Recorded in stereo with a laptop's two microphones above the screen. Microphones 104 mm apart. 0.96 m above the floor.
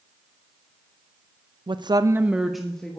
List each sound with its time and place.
1.7 s a woman speaking: 50° right (ahead or behind), 0.6 m; by 3.0 s 10° left (ahead or behind), 1.4 m